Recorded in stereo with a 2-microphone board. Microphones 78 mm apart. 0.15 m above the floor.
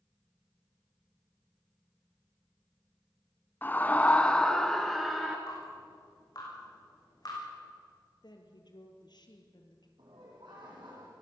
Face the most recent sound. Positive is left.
turn(degrees=-80)